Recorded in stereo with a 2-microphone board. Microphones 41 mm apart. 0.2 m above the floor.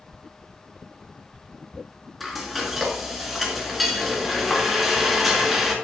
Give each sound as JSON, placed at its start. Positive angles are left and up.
{"t": 2.2, "sound": "frying", "side_deg": 0, "distance_m": 2.5}